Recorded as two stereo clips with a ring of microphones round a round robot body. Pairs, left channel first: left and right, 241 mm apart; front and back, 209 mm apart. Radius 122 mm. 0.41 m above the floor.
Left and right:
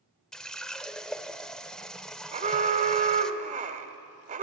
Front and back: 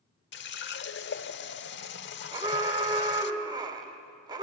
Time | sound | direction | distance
0.3 | a running tap | 5° left | 0.9 m
2.3 | an alarm | 125° right | 1.6 m